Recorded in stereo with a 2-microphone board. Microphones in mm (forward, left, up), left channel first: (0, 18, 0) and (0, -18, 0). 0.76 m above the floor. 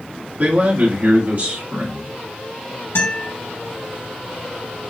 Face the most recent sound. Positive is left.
turn(degrees=75)  # may be behind; listen again after turning